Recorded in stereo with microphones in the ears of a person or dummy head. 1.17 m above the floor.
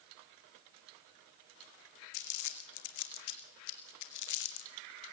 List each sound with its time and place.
2.1 s crumpling: 60° left (ahead or behind), 1.6 m